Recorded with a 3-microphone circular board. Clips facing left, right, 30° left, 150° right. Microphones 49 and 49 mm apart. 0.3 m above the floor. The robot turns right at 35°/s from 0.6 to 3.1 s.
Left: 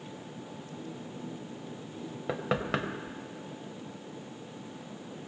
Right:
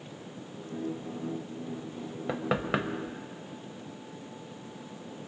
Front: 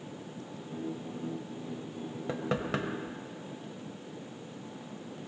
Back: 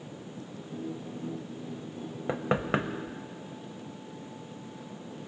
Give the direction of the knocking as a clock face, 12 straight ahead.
6 o'clock.